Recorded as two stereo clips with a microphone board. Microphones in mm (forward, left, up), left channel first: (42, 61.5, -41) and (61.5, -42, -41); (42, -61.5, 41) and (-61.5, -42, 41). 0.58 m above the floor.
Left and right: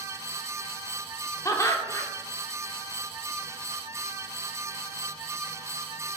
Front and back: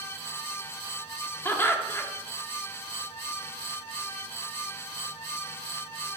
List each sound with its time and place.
1.4 s laughter: 50° left, 1.4 m